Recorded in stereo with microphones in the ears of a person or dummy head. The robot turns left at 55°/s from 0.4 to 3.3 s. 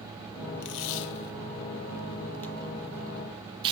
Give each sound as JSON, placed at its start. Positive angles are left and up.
{"t": 0.6, "sound": "tape being pulled", "side_deg": 55, "distance_m": 0.5}